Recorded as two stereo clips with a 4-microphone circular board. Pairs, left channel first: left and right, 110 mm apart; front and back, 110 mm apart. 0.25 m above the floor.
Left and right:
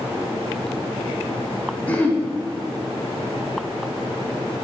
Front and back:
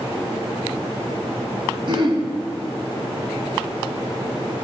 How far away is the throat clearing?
About 1.1 m.